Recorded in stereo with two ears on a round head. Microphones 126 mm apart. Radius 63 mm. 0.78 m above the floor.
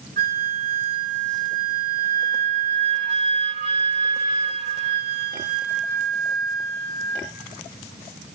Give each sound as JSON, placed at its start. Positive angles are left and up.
{"t": 0.2, "sound": "a flute", "side_deg": -70, "distance_m": 3.5}